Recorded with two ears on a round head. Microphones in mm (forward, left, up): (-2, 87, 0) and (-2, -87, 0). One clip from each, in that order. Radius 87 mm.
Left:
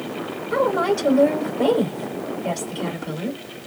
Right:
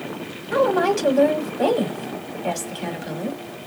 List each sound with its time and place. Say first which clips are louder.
0.5 s a woman speaking: right 1 dB; 45° right (ahead or behind), 2.5 m